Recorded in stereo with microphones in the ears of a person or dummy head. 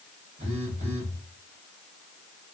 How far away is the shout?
No shout in this recording.